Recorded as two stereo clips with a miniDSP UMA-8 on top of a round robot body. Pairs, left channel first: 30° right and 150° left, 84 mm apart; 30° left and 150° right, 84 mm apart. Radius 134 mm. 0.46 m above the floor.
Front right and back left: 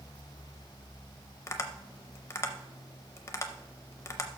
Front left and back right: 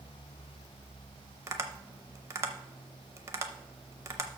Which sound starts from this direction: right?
Tapping, at 1.5 s.